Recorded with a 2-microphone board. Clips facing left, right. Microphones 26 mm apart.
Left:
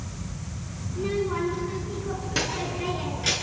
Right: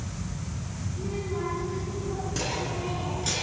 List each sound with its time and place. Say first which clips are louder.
0.9 s a child speaking: left 7 dB; 60° left (ahead or behind), 5 m; by 3.3 s 30° left (ahead or behind), 7 m